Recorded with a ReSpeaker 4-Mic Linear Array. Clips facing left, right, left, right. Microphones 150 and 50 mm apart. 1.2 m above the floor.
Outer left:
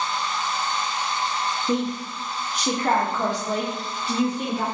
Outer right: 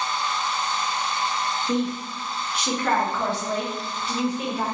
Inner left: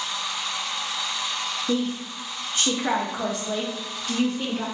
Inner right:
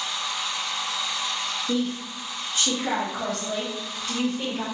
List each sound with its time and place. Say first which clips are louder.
1.7 s a woman speaking: even, inner left 1 dB; 50° left (ahead or behind), 0.9 m; by 4.7 s 5° right (ahead or behind), 1.7 m